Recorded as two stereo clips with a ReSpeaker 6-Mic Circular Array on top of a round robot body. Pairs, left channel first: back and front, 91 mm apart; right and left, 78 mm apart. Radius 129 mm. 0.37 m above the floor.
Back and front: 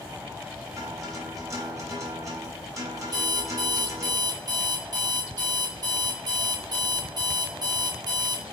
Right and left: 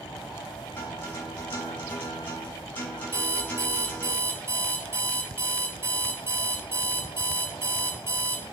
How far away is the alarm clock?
About 1.2 m.